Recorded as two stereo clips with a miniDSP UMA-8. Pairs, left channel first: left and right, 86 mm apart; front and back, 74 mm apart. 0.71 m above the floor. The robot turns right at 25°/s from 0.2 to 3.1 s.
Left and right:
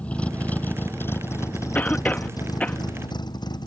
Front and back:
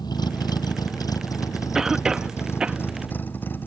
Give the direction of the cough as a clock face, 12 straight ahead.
8 o'clock.